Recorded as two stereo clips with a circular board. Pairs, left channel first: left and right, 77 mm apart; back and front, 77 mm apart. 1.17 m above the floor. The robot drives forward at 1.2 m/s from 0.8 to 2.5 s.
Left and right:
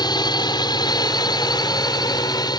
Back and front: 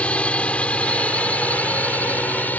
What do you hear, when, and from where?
0.0 s a drone: 105° left; by 2.6 s 110° left